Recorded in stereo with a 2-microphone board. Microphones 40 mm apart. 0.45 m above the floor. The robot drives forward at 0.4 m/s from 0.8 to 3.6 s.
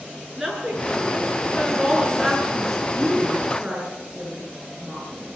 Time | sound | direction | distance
0.4 | a woman speaking | 5° right (ahead or behind) | 7 m
2.9 | a woman speaking | 25° right (ahead or behind) | 7 m